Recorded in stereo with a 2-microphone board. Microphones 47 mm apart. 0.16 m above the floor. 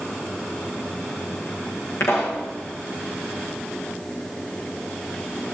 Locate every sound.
2.0 s a pop: 65° left (ahead or behind), 7.5 m